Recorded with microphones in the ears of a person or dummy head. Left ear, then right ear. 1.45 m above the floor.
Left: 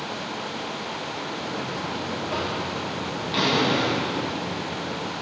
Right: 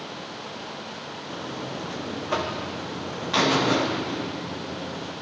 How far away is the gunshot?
No gunshot in this recording.